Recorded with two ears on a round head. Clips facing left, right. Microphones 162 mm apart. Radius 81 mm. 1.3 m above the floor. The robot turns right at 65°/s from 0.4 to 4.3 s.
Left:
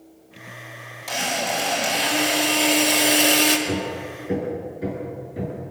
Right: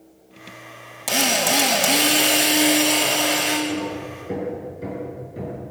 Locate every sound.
1.1 s a drill: 115° right, 3 m; by 3.6 s 50° left, 3 m
3.7 s hammering: 45° left (ahead or behind), 6.5 m; by 5.6 s 5° left (ahead or behind), 6.5 m